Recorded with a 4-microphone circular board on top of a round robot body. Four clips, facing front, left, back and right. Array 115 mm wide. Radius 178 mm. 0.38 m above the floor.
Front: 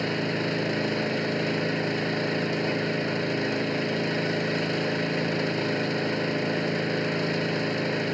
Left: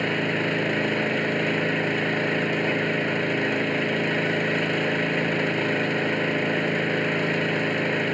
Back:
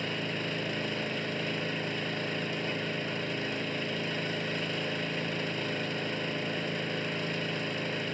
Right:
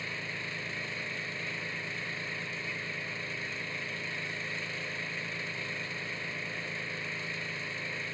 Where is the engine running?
65° left.